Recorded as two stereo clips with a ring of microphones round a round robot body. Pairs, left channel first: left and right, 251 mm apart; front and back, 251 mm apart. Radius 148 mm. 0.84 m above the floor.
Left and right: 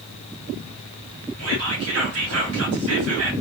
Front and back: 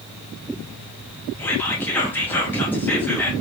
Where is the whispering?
80° right, 1.6 m.